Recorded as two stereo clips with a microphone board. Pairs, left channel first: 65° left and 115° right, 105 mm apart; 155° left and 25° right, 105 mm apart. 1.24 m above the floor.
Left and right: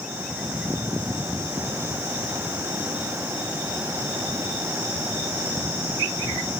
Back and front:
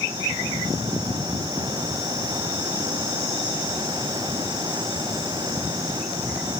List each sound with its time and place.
Only background noise.